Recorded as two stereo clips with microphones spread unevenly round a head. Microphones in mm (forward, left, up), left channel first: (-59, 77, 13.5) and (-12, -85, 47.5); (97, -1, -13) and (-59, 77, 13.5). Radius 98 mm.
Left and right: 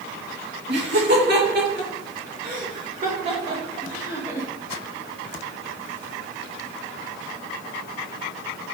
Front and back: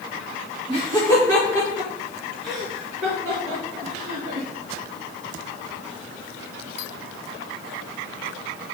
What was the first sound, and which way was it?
Laughter, 95° right.